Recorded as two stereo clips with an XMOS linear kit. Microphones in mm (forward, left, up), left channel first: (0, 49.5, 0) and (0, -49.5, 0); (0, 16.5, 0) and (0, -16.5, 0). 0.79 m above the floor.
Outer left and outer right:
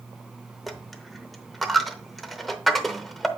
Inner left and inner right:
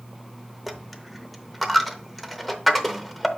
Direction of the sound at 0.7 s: Centre (ahead or behind).